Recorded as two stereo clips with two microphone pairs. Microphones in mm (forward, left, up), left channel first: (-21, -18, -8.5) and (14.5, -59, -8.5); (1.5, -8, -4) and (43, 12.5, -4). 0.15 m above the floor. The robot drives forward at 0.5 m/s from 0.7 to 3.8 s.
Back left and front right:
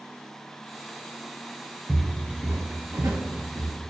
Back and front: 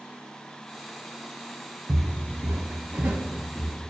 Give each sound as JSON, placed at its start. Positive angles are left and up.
{"t": 1.9, "sound": "footsteps", "azimuth_deg": 30, "distance_m": 1.1}